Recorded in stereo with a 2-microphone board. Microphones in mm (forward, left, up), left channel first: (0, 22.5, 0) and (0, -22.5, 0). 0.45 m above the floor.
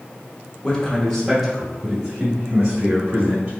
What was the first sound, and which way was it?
A man speaking, 20° left (ahead or behind).